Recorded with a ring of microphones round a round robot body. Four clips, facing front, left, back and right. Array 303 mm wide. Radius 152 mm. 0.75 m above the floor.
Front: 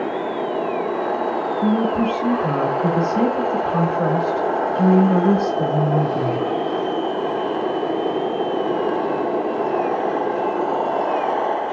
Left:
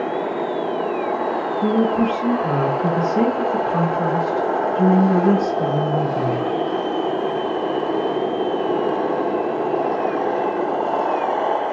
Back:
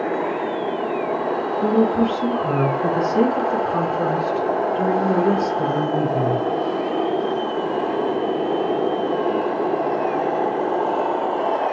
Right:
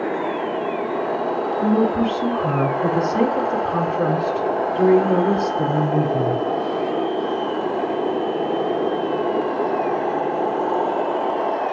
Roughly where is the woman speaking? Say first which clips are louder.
Left 1 dB, back 2 dB; right.